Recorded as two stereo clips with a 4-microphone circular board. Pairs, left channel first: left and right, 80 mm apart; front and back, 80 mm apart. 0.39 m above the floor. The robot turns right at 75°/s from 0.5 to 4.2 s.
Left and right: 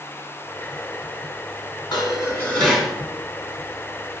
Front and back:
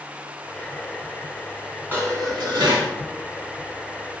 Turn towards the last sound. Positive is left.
turn(degrees=-70)